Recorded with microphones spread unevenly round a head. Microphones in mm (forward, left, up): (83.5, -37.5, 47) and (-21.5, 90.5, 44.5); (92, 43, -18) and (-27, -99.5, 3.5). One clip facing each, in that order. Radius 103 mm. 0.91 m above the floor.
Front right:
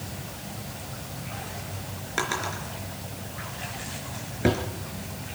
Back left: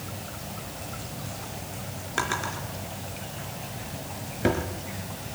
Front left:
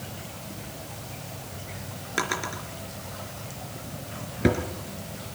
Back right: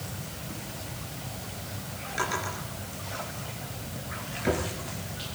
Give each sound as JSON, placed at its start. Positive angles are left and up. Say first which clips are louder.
{"t": 2.2, "sound": "a drawer", "louder": "front right 1 dB, front left 2 dB", "azimuth_deg": 35, "distance_m": 3.5}